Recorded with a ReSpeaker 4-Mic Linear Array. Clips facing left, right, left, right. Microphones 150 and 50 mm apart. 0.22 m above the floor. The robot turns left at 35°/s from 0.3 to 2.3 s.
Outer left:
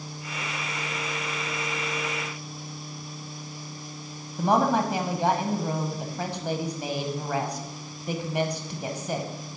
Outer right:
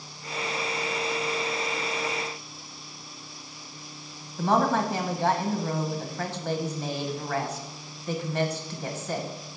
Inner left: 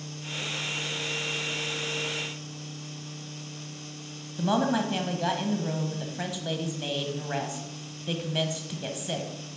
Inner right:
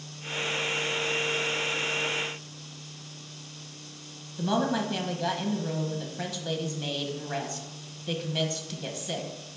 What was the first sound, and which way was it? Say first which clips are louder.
A woman speaking: outer left 1 dB, inner left 2 dB; 15° left (ahead or behind).